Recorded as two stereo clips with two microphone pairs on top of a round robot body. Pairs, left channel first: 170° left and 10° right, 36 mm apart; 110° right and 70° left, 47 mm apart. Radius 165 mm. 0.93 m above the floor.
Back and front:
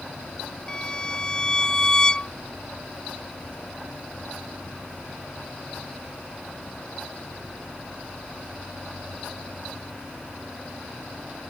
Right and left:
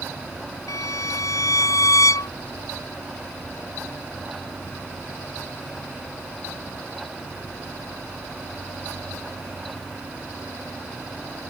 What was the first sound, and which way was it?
A violin, 115° right.